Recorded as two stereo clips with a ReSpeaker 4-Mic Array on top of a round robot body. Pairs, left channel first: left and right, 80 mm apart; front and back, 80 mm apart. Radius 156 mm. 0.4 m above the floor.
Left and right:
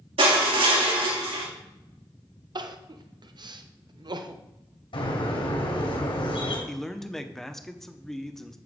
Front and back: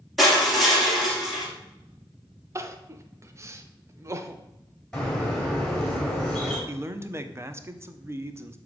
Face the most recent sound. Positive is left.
turn(degrees=175)